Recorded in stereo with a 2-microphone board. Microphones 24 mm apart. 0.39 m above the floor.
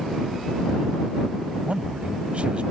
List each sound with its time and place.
1.6 s a man speaking: 55° right (ahead or behind)